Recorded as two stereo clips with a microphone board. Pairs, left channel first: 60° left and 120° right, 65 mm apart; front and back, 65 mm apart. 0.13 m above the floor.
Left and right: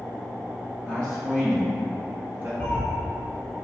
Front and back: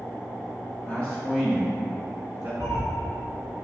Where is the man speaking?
5° right, 1.9 m; by 2.5 s 155° right, 1.7 m.